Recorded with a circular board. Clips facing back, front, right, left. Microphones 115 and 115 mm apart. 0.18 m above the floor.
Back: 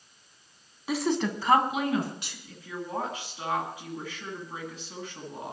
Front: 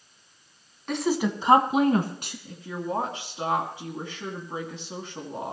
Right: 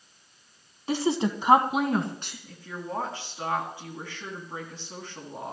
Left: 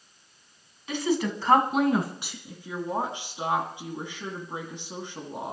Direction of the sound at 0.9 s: 100° right.